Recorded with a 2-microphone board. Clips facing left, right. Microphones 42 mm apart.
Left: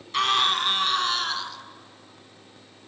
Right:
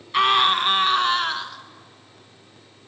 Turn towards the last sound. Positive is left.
turn(degrees=-25)  # may be behind; listen again after turning